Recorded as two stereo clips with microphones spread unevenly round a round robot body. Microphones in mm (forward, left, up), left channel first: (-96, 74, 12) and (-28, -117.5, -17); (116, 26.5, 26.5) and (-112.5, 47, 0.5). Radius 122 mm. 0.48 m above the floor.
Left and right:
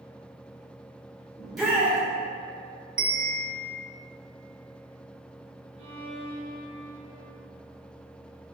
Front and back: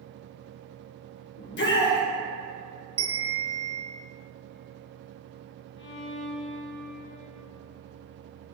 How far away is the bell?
About 0.9 m.